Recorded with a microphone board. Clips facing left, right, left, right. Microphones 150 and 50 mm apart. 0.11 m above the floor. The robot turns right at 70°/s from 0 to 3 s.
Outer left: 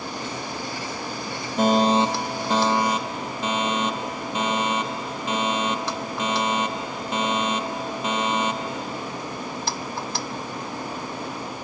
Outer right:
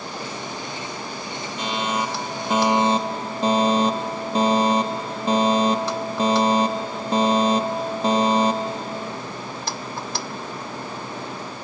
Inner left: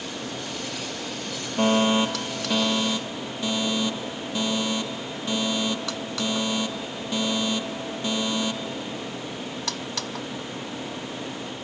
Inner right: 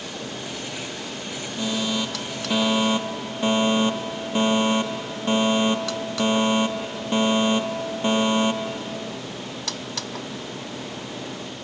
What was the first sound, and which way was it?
A fire alarm, 120° left.